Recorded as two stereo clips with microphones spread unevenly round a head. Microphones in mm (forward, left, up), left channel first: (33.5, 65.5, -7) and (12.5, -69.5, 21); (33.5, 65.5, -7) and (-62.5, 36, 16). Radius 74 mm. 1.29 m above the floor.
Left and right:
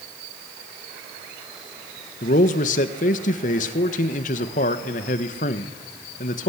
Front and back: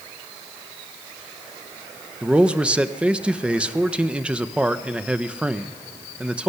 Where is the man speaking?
115° left, 1.3 m.